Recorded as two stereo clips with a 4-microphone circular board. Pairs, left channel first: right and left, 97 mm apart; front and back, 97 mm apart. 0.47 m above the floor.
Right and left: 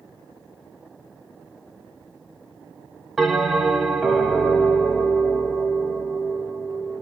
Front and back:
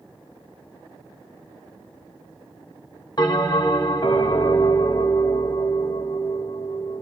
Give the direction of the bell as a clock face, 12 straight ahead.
12 o'clock.